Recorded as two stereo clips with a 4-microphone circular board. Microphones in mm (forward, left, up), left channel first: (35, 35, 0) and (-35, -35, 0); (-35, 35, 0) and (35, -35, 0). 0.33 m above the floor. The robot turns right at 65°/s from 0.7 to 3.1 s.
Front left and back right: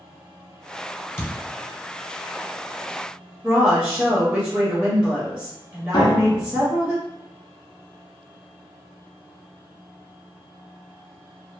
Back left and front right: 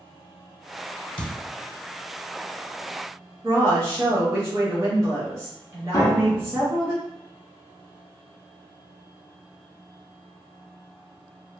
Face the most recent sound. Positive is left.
turn(degrees=80)